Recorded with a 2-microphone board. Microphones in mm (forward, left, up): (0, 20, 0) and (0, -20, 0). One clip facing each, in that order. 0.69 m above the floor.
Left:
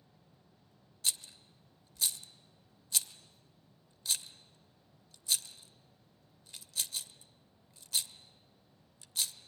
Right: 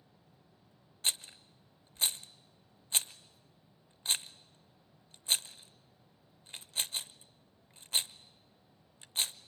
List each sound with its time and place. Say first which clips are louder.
1.0 s a rattle: right 3 dB; 40° right (ahead or behind), 0.6 m